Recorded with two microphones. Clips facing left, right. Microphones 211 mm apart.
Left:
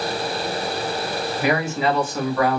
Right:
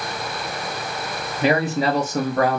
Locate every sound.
1.4 s a man speaking: 25° right (ahead or behind), 0.8 m; by 2.6 s 50° right (ahead or behind), 0.9 m